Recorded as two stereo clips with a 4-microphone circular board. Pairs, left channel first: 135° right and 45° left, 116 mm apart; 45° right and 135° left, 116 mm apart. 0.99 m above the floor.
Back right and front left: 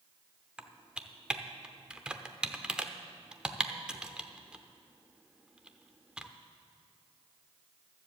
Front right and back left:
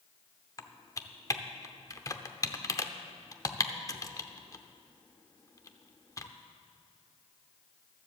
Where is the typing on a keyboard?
30° right, 0.6 m.